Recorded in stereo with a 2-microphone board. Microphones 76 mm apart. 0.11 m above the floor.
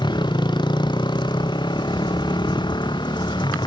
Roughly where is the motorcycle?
Left.